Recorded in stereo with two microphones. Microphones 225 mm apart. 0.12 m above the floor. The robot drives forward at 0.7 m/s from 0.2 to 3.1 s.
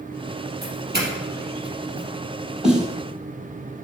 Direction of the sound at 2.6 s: 5° right (ahead or behind).